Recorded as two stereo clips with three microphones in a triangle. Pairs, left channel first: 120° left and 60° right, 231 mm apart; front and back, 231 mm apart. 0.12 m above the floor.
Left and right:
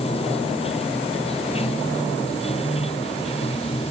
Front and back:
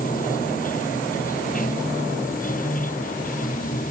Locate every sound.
0.0 s running water: 55° left